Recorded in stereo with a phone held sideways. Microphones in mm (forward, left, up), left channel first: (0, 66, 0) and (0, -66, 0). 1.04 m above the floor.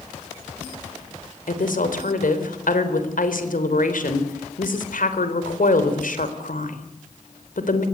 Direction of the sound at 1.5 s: 80° left.